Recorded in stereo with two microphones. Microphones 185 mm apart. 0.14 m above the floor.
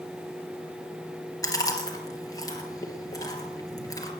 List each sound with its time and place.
1.4 s chewing: 20° left (ahead or behind), 2.5 m